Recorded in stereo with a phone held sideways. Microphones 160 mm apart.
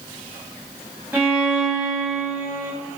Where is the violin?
10° right (ahead or behind), 1.1 m.